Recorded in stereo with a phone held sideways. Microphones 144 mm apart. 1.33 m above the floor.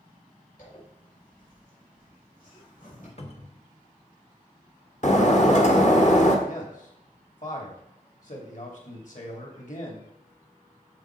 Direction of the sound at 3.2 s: 45° left (ahead or behind).